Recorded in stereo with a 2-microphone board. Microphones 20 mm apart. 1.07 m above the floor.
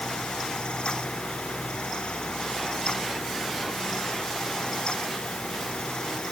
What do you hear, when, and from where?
Only background noise.